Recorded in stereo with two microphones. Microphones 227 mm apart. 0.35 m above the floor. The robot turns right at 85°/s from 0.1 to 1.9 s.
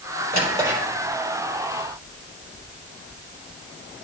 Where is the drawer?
45° right (ahead or behind), 4 m; by 0.8 s 5° right (ahead or behind), 4 m.